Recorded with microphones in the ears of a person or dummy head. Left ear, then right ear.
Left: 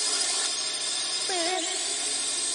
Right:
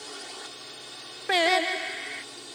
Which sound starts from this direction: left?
A drone, at 0.0 s.